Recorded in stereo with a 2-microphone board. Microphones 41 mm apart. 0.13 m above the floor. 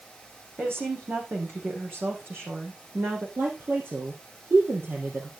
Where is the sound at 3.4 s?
70° right (ahead or behind), 3.5 m.